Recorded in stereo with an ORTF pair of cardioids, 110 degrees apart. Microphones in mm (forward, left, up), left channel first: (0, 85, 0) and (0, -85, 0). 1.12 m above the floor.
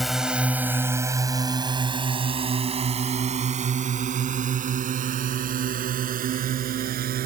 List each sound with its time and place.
0.0 s a drone: straight ahead; by 7.3 s 60° right